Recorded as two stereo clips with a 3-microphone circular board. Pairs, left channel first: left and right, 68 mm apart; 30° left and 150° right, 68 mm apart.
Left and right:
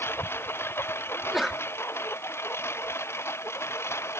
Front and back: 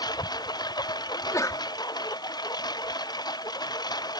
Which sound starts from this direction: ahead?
A sneeze, at 1.1 s.